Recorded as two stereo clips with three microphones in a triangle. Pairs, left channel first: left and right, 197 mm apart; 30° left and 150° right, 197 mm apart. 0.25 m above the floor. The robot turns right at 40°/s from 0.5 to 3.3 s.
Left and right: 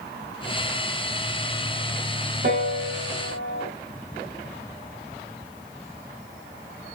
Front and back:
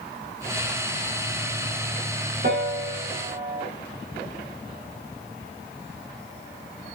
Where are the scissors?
I don't hear scissors.